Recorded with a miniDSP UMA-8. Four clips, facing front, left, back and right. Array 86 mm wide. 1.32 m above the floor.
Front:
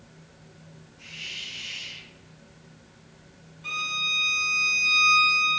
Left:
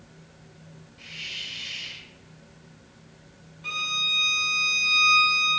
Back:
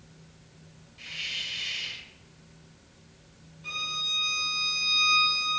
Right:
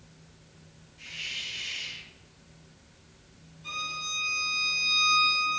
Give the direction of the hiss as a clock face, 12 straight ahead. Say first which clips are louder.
Even, back 3 dB; 6 o'clock.